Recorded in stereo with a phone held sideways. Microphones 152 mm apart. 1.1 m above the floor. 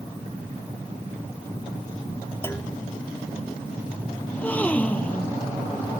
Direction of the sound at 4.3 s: 10° left (ahead or behind).